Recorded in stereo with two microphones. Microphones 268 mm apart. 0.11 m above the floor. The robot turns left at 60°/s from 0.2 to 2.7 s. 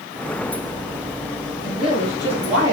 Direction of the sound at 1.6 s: 50° left.